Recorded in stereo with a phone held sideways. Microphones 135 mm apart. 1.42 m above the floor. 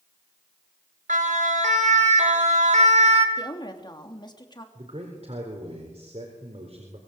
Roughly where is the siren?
Right.